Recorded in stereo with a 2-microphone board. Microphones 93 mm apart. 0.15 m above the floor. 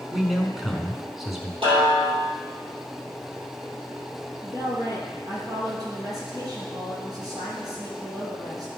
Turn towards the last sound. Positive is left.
turn(degrees=-40)  # may be behind; listen again after turning